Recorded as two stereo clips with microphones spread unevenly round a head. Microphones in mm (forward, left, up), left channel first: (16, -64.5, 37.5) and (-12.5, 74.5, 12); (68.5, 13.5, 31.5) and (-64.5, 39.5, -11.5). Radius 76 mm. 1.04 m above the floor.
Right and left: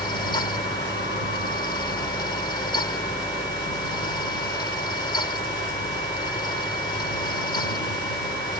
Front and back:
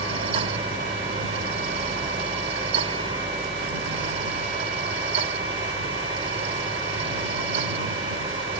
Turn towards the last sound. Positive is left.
turn(degrees=-140)